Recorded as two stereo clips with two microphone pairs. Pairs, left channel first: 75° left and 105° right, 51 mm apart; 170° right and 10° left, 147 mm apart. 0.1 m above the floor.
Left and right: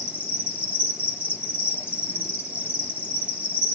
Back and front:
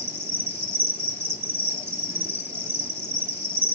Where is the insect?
55° right, 0.9 m.